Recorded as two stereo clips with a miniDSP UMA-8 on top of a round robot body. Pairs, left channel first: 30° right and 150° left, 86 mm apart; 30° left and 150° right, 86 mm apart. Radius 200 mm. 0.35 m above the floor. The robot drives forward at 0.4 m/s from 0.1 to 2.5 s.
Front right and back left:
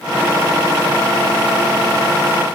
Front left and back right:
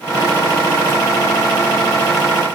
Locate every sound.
Only background noise.